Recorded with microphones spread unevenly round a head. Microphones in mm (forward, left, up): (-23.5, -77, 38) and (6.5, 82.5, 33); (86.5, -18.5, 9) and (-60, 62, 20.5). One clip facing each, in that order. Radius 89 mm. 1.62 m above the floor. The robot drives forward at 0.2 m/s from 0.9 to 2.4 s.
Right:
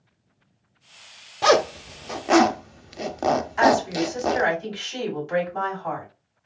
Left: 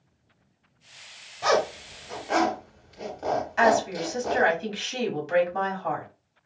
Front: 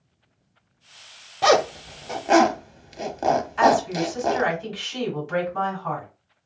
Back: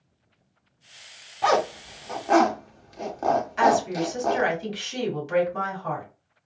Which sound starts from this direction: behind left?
A woman speaking, at 3.6 s.